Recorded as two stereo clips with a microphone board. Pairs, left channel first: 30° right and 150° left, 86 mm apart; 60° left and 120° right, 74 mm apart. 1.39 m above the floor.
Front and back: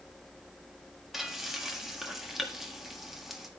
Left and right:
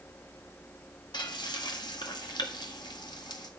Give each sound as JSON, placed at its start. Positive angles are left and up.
{"t": 1.1, "sound": "frying", "azimuth_deg": 65, "distance_m": 1.7}